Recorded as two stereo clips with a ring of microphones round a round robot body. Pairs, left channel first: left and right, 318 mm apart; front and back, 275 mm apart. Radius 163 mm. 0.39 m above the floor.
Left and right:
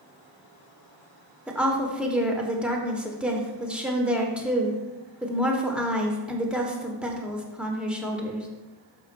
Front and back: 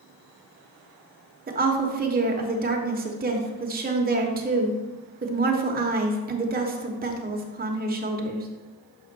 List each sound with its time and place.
1.5 s a woman speaking: 175° right, 1.1 m